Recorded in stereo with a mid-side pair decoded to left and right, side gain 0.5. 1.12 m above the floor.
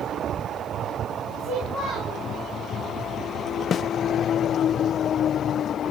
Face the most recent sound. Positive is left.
turn(degrees=50)